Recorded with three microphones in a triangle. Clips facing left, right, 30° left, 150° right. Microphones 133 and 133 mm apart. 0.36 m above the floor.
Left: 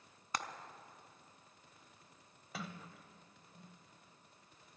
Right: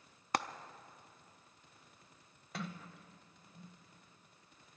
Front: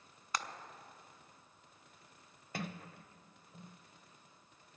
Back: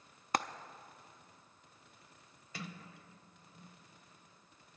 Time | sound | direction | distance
0.3 | frying | 115° right | 0.5 m
2.5 | a sliding door | 5° left | 0.6 m